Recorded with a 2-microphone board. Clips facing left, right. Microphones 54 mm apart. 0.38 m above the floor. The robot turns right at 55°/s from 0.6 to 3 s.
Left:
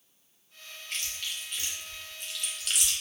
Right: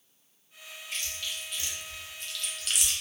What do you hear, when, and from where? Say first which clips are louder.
0.9 s chewing: even; 70° left (ahead or behind), 0.8 m; by 2.9 s 15° right (ahead or behind), 0.8 m